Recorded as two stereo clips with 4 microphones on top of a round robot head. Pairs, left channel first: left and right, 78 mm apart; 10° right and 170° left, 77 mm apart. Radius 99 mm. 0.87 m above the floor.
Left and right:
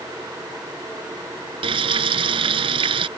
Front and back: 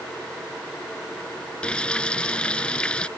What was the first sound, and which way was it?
Frying, 90° right.